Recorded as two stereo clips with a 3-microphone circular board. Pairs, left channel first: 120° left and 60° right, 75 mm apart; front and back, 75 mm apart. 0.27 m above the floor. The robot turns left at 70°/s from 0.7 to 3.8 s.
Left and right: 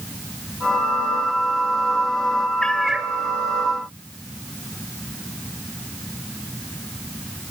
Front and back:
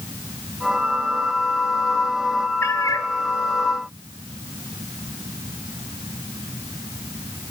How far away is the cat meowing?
About 0.7 m.